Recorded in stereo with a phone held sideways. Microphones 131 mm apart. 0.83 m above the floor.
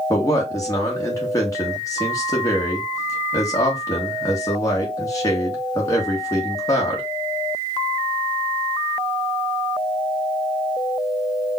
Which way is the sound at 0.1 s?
30° left (ahead or behind).